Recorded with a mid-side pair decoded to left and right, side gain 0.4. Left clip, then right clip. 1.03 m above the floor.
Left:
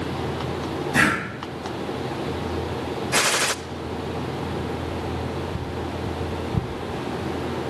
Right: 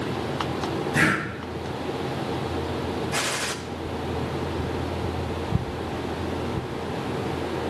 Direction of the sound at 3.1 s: 55° left.